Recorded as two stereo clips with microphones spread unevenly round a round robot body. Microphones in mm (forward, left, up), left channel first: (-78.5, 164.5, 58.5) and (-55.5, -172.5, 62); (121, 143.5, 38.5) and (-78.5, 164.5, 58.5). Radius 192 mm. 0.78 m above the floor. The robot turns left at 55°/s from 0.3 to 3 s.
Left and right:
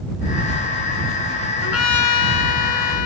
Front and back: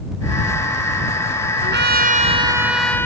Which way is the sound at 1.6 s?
150° left.